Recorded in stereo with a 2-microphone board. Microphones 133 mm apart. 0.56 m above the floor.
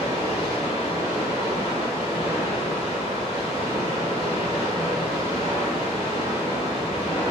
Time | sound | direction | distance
0.0 | running water | 45° right (ahead or behind) | 1.1 m